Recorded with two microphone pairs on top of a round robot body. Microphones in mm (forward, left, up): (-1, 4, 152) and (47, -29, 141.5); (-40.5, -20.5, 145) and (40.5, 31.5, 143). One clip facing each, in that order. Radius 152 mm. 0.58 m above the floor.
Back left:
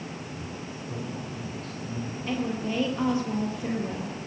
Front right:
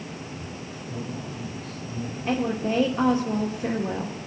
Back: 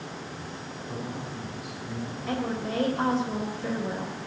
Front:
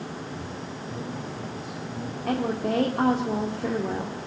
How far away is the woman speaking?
About 2 m.